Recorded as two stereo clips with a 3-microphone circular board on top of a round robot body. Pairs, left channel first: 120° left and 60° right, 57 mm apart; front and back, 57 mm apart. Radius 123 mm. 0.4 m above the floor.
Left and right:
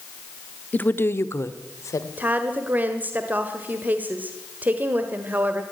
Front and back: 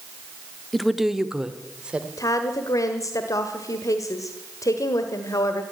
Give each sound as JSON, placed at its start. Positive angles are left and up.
{"t": 0.7, "sound": "a woman speaking", "azimuth_deg": 85, "distance_m": 1.2}
{"t": 2.2, "sound": "a woman speaking", "azimuth_deg": 0, "distance_m": 1.7}